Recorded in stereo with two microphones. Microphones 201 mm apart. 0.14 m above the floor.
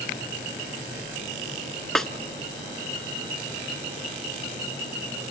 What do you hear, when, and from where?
1.9 s a snare drum: centre (ahead or behind), 0.6 m